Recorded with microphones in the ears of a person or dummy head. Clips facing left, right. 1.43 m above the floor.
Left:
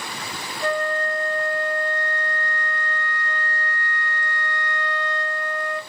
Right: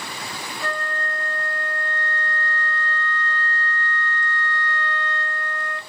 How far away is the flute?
About 0.7 m.